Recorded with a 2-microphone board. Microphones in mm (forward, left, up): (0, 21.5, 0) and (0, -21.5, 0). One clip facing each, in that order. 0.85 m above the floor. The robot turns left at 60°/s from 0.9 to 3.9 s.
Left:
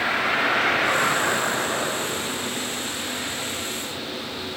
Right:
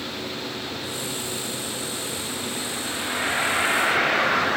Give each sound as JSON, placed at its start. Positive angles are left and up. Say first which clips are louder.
{"t": 0.0, "sound": "a vehicle", "louder": "left 10 dB", "azimuth_deg": 110}